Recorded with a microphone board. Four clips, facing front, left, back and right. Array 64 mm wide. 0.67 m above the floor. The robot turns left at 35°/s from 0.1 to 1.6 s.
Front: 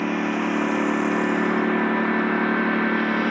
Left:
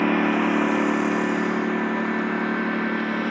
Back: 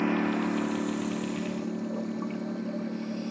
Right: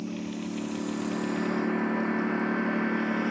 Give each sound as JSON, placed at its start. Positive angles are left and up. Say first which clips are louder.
{"t": 0.0, "sound": "a lawn mower", "louder": "left 14 dB, front 4 dB", "azimuth_deg": 75}